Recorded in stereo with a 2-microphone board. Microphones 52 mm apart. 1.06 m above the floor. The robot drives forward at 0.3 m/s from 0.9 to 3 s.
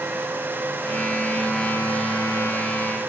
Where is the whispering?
I don't hear whispering.